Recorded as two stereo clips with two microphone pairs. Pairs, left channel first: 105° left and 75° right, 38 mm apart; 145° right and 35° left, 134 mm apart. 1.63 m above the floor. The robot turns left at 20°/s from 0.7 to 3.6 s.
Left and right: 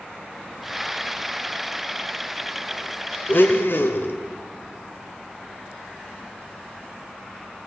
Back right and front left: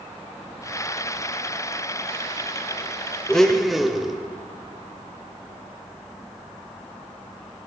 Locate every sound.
3.3 s a blender: 130° left, 0.6 m; by 4.2 s 125° left, 0.6 m